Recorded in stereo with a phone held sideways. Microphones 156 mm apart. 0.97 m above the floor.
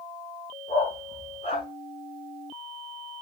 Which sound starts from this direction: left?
A dog barking, at 0.7 s.